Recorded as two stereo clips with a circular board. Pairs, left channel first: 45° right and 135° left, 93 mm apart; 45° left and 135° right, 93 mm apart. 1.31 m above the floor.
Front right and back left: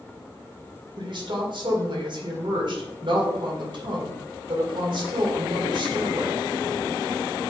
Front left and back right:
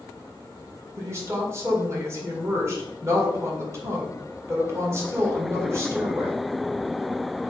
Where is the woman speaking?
165° left, 2 m.